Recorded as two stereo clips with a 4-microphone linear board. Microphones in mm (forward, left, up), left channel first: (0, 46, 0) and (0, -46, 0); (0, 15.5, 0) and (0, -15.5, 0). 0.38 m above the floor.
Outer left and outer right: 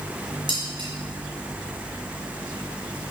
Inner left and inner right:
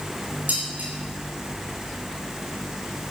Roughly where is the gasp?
No gasp in this recording.